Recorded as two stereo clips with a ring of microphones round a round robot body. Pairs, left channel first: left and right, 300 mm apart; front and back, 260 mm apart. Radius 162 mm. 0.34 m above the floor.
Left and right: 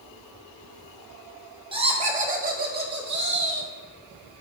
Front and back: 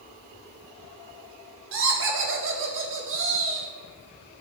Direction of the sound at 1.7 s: 160° right.